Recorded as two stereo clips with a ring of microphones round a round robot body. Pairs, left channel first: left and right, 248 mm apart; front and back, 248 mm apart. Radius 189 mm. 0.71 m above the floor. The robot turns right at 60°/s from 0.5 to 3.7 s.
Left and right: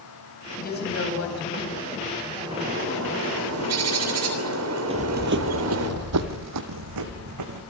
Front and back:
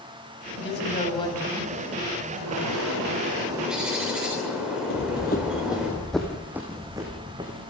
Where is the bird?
170° right, 3.5 m; by 5.9 s 95° right, 3.5 m.